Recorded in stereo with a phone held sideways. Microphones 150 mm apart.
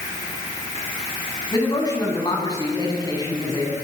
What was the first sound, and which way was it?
A man speaking, 25° left (ahead or behind).